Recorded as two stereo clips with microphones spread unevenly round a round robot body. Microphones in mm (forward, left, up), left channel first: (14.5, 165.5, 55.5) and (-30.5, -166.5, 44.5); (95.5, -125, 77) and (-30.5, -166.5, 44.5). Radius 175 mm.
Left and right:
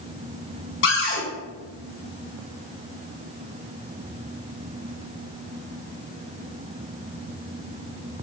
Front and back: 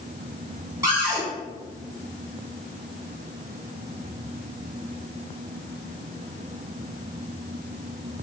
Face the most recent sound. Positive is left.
turn(degrees=135)